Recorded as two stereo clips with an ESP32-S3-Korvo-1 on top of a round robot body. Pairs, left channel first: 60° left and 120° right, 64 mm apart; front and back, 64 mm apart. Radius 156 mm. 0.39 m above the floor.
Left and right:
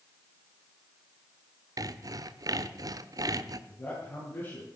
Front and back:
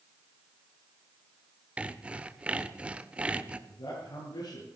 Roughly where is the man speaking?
Ahead.